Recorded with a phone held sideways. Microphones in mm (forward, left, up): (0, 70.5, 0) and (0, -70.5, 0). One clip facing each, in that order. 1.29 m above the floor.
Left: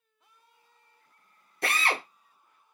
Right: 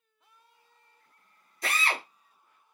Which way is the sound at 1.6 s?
65° left (ahead or behind).